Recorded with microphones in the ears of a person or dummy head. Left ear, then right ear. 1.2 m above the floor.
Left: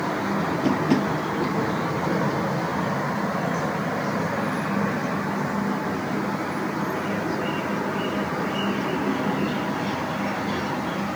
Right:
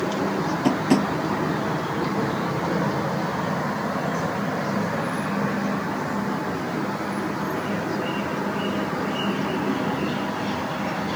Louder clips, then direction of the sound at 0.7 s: Right 2 dB; 30° right (ahead or behind).